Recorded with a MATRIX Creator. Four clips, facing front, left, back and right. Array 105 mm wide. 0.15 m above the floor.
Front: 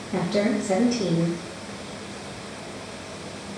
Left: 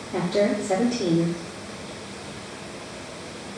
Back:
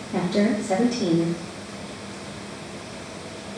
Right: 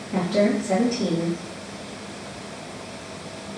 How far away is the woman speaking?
About 2 m.